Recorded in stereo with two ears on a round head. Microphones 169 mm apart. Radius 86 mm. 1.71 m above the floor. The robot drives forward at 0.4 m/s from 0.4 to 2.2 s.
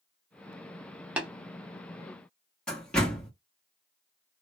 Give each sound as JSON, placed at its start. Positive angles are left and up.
{"t": 1.2, "sound": "tapping", "side_deg": -10, "distance_m": 0.8}
{"t": 2.7, "sound": "a door slam", "side_deg": 5, "distance_m": 1.3}